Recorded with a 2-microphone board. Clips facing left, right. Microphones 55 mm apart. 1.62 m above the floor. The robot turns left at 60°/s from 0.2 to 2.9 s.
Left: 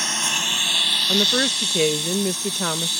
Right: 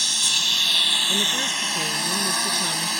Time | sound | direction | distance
0.0 | a lawn mower | 40° left | ?
1.1 | a woman speaking | 145° left | ?